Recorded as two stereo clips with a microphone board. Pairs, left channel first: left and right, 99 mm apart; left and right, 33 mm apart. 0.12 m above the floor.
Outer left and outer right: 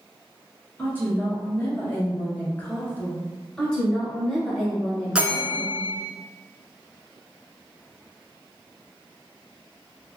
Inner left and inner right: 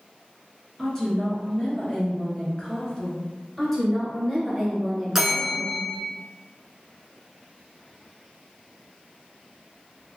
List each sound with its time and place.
0.8 s a woman speaking: 20° left (ahead or behind), 1.2 m
3.6 s a woman speaking: 10° left (ahead or behind), 1.3 m
5.2 s a bell: 10° right (ahead or behind), 0.6 m